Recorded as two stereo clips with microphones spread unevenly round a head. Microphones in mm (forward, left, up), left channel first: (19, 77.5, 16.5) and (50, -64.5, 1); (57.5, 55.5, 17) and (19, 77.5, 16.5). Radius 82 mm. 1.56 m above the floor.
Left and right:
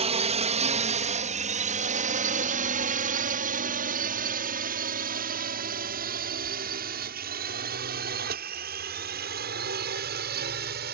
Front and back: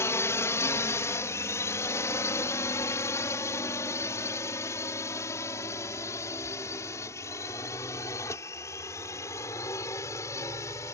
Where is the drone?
35° right; by 10.9 s 70° right.